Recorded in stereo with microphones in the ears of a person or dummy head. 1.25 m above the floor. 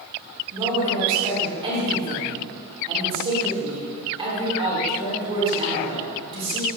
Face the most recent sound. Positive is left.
turn(degrees=-25)  # may be behind; listen again after turning